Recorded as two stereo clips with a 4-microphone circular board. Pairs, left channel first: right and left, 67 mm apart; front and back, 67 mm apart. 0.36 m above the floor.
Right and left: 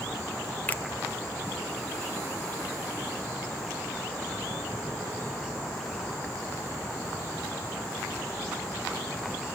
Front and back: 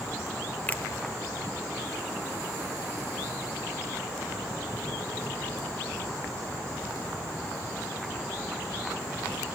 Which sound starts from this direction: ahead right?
A finger snap, at 0.7 s.